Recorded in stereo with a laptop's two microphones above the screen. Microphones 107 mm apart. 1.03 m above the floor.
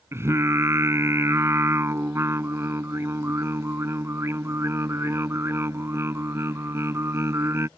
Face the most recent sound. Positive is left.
turn(degrees=-25)  # may be behind; listen again after turning